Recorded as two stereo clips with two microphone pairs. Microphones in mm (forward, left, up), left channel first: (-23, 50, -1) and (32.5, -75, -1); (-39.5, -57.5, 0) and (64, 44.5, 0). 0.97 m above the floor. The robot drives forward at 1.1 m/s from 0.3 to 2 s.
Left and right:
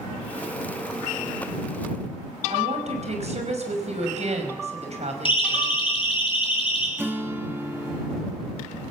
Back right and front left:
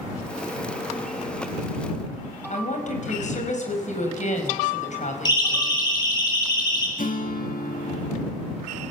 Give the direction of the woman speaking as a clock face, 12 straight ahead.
3 o'clock.